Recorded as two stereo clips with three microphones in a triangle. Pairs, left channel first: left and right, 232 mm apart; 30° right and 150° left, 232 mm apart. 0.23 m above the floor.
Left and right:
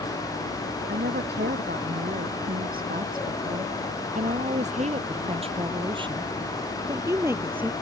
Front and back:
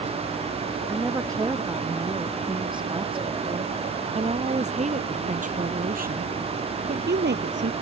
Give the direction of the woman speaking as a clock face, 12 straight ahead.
4 o'clock.